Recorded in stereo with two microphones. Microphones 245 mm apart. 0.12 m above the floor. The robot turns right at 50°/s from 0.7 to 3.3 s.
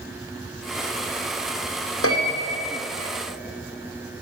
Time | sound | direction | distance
2.0 | a piano | 65° left (ahead or behind) | 3 m